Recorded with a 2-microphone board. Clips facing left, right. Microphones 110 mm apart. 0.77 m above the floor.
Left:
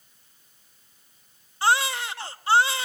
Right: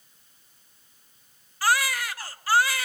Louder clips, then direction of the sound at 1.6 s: Left 2 dB; 25° left (ahead or behind).